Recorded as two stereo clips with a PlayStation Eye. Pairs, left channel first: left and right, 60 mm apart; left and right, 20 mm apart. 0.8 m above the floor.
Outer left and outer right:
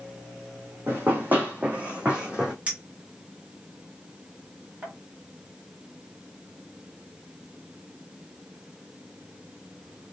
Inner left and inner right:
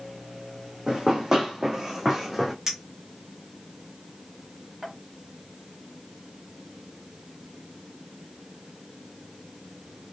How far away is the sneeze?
No sneeze in this recording.